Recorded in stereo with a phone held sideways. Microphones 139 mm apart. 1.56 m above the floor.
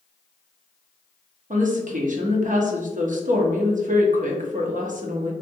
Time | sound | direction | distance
1.5 | a woman speaking | 65° right (ahead or behind) | 0.9 m